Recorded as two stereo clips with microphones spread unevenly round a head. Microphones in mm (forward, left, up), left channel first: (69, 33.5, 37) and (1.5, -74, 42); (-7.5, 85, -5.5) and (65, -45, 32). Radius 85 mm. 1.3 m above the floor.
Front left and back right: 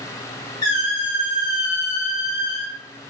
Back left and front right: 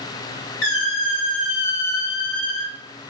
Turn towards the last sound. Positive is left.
turn(degrees=125)